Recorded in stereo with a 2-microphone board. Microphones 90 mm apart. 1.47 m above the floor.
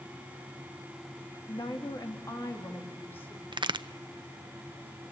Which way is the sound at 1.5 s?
55° left (ahead or behind).